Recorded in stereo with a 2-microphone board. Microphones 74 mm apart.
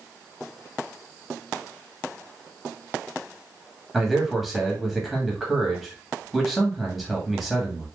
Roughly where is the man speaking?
Centre.